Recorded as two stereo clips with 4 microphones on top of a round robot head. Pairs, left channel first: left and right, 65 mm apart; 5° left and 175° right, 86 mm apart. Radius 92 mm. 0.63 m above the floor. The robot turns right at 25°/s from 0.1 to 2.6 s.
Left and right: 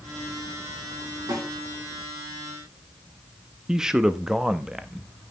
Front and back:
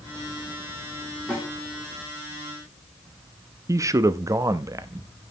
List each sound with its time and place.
1.3 s a snare drum: 75° right, 8.5 m; by 1.5 s 70° right, 8.5 m
3.7 s a man speaking: 165° right, 0.8 m